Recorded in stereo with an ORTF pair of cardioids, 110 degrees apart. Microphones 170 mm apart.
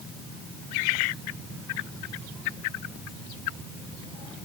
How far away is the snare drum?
I don't hear a snare drum.